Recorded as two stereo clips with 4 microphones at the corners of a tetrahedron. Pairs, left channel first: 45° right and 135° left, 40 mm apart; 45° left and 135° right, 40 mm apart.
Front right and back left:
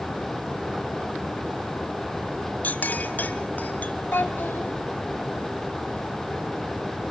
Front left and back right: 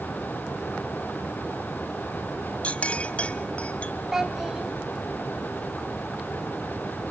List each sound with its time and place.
2.6 s a clink: 5° right, 1.1 m
4.1 s a child speaking: 55° right, 1.9 m